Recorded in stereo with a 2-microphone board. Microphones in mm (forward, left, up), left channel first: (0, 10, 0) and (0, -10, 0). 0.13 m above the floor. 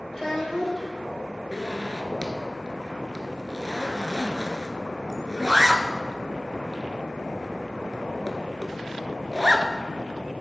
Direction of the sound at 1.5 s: 30° right (ahead or behind).